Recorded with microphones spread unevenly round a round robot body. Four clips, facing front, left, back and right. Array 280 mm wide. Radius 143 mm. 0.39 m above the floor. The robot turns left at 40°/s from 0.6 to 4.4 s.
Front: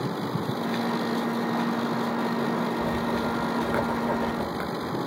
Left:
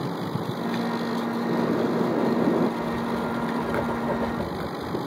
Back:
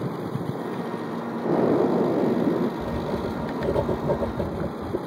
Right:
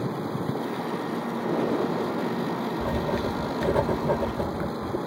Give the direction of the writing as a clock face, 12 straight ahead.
4 o'clock.